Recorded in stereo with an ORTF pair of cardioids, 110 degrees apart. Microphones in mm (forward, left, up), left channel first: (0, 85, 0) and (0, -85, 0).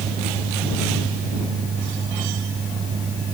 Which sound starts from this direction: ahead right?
A fan, at 0.0 s.